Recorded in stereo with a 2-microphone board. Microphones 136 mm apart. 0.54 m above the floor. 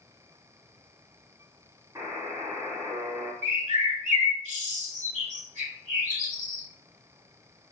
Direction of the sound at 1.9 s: 25° right (ahead or behind).